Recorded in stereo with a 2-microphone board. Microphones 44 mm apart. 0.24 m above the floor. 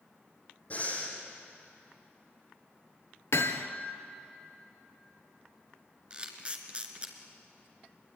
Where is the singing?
No singing in this recording.